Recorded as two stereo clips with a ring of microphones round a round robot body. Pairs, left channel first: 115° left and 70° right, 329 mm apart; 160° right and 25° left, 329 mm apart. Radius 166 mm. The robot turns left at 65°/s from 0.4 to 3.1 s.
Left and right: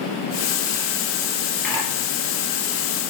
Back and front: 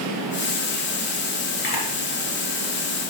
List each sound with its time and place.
1.6 s a camera shutter: 140° right, 3.5 m; by 1.9 s 155° right, 3.5 m